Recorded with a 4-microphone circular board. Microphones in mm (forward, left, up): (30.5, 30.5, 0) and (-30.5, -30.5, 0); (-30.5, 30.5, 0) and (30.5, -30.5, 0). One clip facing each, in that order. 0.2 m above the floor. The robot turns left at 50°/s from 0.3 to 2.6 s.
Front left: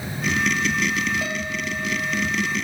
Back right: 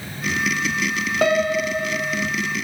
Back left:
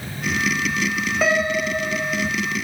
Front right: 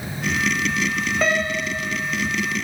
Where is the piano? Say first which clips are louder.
Back right 10 dB, back left 4 dB; 140° right, 0.6 m; by 2.3 s 165° left, 0.6 m.